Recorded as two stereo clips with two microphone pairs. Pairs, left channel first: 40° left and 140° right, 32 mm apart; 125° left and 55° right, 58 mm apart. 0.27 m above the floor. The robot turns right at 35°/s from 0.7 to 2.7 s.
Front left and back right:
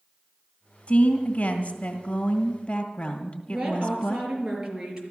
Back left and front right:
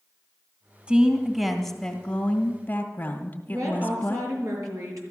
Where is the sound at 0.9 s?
10° left, 1.7 m; by 4.3 s 75° left, 1.7 m.